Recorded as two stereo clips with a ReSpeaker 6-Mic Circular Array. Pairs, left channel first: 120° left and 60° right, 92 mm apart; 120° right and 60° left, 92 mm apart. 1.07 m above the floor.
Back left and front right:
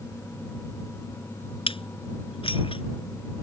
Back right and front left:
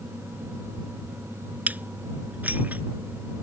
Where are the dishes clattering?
130° left.